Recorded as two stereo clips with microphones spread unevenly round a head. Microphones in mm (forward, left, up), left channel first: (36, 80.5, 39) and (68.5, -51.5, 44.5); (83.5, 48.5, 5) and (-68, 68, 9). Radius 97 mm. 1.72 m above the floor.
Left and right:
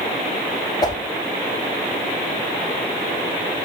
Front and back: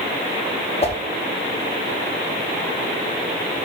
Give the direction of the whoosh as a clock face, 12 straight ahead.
11 o'clock.